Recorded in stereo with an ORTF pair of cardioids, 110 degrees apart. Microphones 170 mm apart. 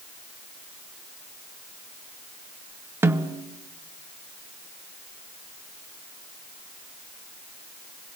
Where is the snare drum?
15° right, 1.7 m.